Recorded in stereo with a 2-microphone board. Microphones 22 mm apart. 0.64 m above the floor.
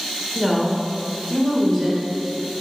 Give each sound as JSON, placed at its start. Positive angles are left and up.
{"t": 0.3, "sound": "a woman speaking", "side_deg": 5, "distance_m": 2.5}